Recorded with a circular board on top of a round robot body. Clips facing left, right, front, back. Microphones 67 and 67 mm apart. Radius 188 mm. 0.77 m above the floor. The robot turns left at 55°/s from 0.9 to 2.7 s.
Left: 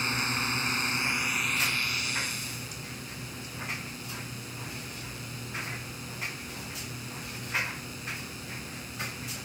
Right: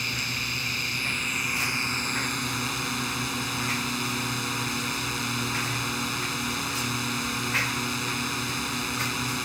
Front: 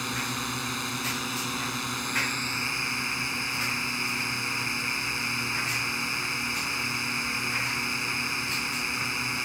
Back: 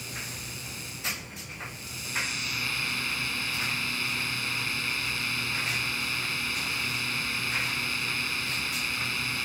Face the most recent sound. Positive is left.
turn(degrees=-70)